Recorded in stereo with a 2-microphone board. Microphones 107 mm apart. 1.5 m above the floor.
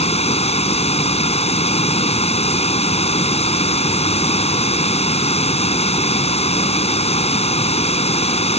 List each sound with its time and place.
0.0 s running water: 75° left (ahead or behind)